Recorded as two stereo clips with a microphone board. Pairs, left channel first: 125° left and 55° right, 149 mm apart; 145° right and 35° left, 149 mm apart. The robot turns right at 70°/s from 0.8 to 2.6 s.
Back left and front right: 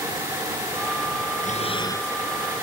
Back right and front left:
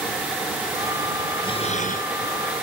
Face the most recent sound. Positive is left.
turn(degrees=-120)